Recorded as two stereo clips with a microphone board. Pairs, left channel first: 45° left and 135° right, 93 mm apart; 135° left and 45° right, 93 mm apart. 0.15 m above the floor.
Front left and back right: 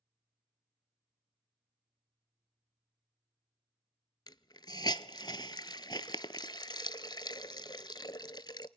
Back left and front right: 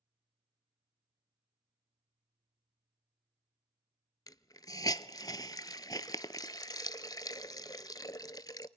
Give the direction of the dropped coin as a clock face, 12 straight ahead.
I don't hear a dropped coin.